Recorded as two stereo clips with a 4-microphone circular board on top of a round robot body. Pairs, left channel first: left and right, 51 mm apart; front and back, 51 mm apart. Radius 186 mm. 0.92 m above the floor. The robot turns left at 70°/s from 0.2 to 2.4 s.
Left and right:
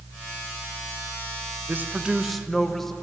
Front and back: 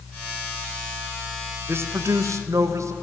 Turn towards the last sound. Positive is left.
turn(degrees=175)